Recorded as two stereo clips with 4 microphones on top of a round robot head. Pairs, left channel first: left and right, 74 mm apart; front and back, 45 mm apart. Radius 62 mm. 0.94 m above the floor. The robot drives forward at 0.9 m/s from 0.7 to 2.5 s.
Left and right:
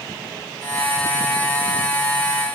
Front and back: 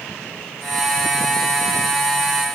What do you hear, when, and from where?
Only background noise.